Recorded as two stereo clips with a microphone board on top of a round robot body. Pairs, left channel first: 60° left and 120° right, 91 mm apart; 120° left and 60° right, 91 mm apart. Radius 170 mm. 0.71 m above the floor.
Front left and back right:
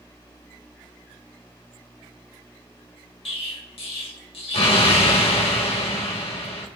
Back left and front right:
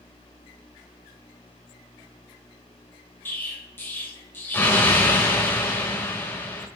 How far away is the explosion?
About 2.5 m.